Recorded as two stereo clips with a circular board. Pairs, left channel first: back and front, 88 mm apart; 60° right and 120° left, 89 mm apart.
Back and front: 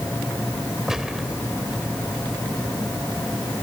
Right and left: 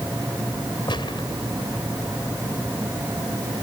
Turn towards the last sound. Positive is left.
turn(degrees=-85)